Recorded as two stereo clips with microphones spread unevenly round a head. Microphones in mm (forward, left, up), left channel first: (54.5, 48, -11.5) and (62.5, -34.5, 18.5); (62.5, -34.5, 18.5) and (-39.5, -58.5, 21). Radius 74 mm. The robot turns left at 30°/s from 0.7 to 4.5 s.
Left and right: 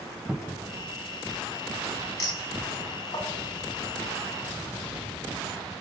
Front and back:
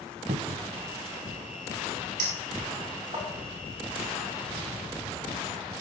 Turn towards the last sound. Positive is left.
turn(degrees=100)